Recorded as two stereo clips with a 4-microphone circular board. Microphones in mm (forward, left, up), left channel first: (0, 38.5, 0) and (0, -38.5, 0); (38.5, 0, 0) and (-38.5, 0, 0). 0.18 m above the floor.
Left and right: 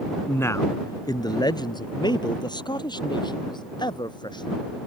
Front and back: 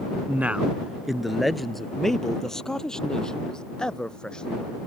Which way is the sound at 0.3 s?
130° left.